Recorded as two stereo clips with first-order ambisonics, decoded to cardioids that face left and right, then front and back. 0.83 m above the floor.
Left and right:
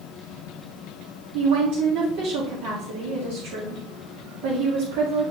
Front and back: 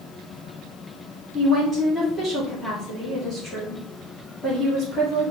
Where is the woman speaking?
90° right, 2.0 m.